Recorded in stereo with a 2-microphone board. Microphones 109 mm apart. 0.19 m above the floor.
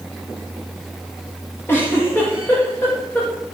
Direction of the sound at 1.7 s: 20° left (ahead or behind).